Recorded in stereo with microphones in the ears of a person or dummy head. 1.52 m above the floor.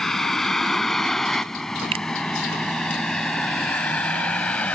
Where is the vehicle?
Centre (ahead or behind); by 4.8 s 5° left (ahead or behind).